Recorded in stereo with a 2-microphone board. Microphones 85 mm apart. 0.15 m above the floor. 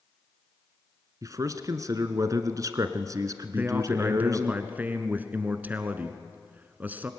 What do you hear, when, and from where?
1.2 s a man speaking: 45° right (ahead or behind), 1.5 m
3.5 s a man speaking: 20° right (ahead or behind), 1.5 m